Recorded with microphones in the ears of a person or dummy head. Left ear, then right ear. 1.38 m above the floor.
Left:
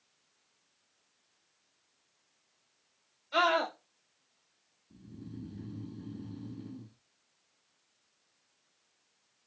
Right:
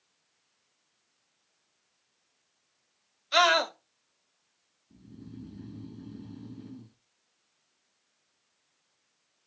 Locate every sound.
3.3 s a scream: 60° right (ahead or behind), 1.0 m
4.9 s snoring: 5° right (ahead or behind), 0.6 m